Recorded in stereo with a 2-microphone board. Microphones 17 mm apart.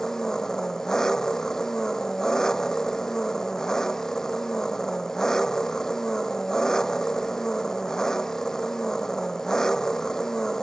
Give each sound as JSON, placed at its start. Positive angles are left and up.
{"t": 0.0, "sound": "an engine running", "side_deg": 40}